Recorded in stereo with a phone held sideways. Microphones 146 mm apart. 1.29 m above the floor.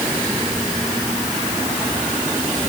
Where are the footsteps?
I don't hear footsteps.